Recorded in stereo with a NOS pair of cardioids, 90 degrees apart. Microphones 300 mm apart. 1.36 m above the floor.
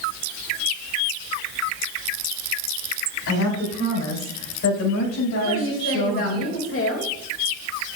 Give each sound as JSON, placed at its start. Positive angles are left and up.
{"t": 3.3, "sound": "a woman speaking", "azimuth_deg": 60, "distance_m": 4.5}
{"t": 5.4, "sound": "a woman speaking", "azimuth_deg": 45, "distance_m": 2.5}